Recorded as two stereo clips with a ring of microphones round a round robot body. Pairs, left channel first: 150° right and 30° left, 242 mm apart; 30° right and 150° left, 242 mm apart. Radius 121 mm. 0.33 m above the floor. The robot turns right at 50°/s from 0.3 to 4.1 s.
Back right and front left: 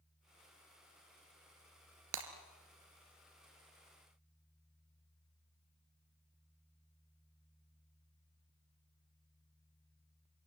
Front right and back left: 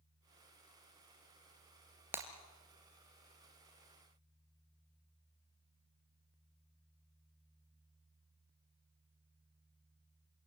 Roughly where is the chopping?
No chopping in this recording.